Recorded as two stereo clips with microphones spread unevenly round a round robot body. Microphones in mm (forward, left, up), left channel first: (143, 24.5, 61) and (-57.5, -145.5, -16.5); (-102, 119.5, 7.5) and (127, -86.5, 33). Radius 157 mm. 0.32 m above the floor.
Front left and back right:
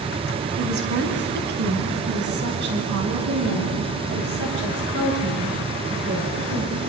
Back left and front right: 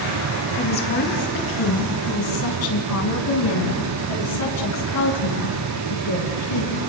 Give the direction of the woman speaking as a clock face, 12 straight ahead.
6 o'clock.